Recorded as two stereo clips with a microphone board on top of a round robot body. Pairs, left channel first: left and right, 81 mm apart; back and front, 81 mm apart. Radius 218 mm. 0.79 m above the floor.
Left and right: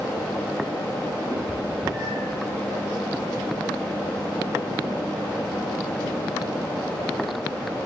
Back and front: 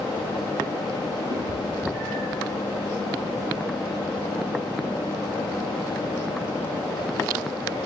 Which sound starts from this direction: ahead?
A cat meowing, at 1.3 s.